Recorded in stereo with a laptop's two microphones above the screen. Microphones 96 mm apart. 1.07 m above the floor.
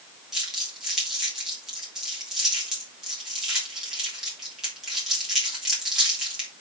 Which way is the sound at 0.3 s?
5° right (ahead or behind).